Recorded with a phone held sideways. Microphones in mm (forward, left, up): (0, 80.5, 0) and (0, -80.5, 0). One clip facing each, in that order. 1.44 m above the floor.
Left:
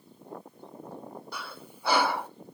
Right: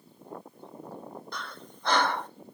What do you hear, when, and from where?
1.3 s breathing: 10° left (ahead or behind), 0.6 m